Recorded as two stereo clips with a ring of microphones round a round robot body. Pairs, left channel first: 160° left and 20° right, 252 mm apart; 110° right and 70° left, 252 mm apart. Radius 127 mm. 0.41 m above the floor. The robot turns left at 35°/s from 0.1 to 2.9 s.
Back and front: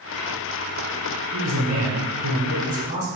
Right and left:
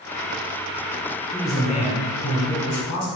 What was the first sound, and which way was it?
A man speaking, 30° right.